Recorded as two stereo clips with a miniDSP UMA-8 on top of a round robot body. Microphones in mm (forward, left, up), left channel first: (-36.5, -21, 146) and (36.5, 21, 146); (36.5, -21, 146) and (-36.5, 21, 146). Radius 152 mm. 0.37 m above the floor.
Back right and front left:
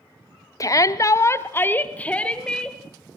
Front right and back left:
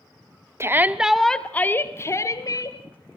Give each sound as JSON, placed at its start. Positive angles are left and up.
{"t": 0.6, "sound": "a shout", "azimuth_deg": -170, "distance_m": 1.5}